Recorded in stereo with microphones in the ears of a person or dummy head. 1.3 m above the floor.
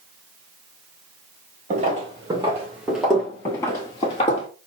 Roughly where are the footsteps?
Right.